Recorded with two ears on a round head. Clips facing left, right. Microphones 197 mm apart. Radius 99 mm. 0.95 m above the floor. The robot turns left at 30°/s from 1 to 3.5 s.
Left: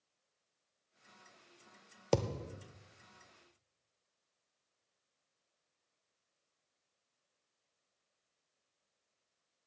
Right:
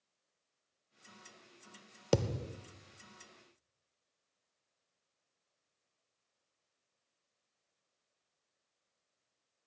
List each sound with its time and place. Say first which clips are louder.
2.1 s a thud: right 1 dB; 10° right (ahead or behind), 0.7 m; by 2.6 s 15° right (ahead or behind), 0.7 m